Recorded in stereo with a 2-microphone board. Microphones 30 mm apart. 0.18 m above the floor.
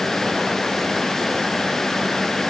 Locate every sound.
Only background noise.